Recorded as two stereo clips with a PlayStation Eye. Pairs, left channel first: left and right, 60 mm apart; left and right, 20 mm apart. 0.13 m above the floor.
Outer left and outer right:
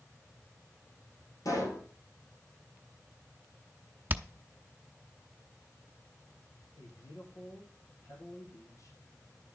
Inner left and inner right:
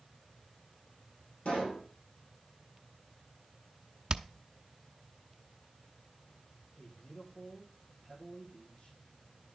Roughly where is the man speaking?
Left.